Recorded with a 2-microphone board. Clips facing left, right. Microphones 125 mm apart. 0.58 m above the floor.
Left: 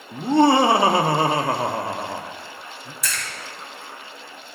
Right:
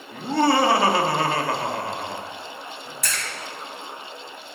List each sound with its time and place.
0.1 s laughter: 20° left (ahead or behind), 0.7 m
3.0 s a splash: 60° right (ahead or behind), 2.5 m